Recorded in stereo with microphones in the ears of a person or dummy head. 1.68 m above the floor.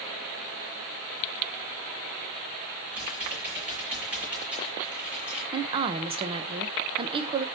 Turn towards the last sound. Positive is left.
turn(degrees=-25)  # may be behind; listen again after turning